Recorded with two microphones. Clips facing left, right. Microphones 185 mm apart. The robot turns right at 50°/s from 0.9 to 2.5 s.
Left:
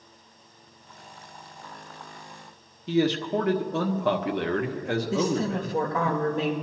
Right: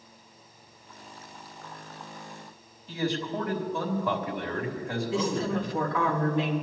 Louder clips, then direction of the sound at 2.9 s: Left 7 dB; 75° left (ahead or behind).